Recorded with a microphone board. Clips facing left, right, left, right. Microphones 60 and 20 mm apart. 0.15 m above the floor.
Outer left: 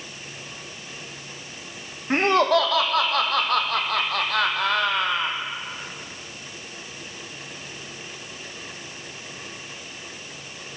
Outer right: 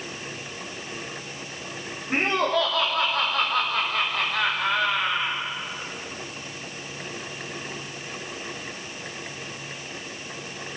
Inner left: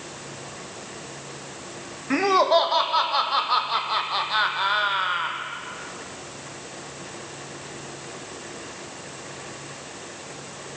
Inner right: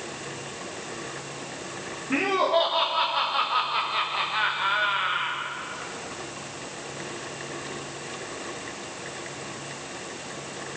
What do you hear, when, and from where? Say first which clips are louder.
2.1 s laughter: outer left 5 dB, inner left 4 dB; 75° left (ahead or behind), 6 m